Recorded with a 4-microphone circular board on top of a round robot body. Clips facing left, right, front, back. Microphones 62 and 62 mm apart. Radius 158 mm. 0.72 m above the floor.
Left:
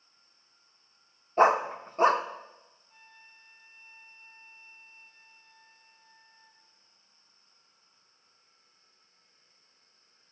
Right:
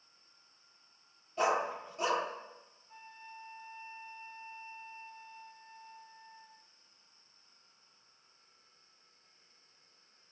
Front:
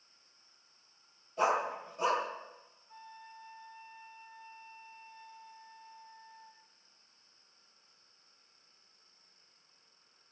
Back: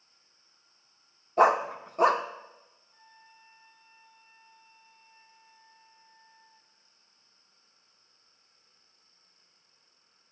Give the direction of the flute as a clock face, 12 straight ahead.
1 o'clock.